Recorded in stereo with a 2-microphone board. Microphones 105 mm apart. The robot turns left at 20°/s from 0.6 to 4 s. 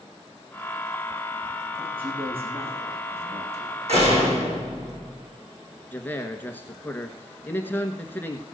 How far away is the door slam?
About 4.5 m.